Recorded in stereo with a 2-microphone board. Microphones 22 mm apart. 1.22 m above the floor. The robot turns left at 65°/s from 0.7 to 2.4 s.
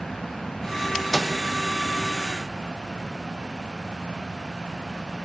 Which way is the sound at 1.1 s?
10° left (ahead or behind).